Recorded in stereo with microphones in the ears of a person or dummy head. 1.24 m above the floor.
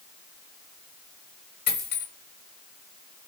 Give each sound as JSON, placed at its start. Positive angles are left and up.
{"t": 1.7, "sound": "a dropped coin", "side_deg": 30, "distance_m": 2.0}